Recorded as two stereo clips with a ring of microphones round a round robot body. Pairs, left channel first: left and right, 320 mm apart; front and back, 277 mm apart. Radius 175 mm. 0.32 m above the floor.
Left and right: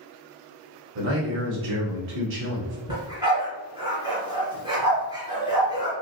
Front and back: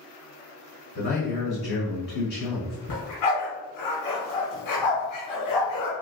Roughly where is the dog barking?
Ahead.